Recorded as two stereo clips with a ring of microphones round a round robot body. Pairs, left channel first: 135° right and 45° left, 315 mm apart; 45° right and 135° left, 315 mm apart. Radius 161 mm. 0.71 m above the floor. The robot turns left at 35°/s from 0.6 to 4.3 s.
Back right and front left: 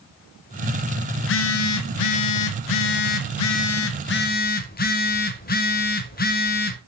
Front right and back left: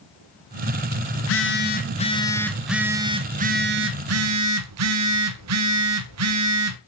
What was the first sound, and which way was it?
A phone buzzing, 85° right.